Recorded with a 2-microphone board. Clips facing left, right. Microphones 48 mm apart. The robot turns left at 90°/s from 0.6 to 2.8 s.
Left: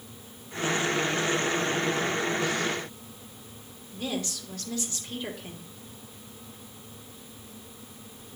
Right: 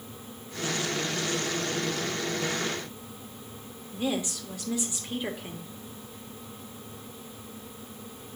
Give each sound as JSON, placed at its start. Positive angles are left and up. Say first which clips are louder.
{"t": 3.9, "sound": "a woman speaking", "louder": "right 3 dB", "side_deg": -15, "distance_m": 1.1}